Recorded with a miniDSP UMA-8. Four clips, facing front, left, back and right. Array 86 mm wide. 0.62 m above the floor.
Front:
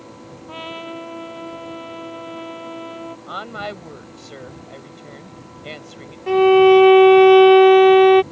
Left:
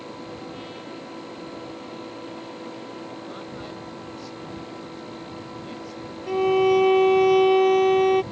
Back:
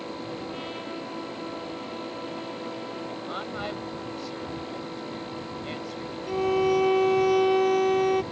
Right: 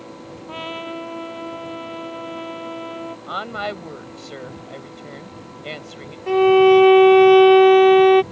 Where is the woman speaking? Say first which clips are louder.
Right 9 dB, front 6 dB; 65° right.